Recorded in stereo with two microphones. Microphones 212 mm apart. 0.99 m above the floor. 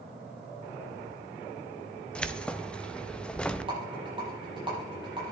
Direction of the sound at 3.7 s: 25° right (ahead or behind).